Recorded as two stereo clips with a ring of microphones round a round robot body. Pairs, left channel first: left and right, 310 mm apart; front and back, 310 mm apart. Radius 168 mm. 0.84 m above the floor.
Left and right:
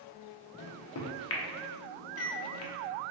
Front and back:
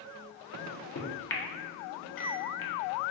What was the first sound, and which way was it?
A microwave, 50° left.